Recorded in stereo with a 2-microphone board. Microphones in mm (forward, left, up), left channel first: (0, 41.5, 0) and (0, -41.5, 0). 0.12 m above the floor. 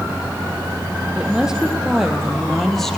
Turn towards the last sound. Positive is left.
turn(degrees=5)  # may be behind; listen again after turning